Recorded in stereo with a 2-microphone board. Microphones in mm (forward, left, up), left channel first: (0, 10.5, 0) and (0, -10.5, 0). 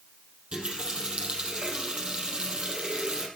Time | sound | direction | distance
0.5 | a running tap | 60° right (ahead or behind) | 4 m